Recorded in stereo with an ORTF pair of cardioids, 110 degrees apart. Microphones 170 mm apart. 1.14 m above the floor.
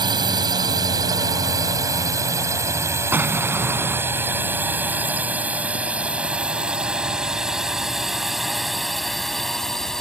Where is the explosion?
10° right.